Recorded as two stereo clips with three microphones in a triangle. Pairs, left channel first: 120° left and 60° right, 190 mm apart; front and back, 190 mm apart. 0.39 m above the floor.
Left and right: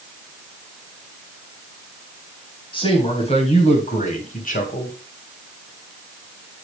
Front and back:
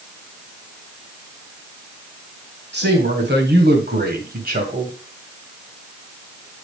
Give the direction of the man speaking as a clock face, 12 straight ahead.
6 o'clock.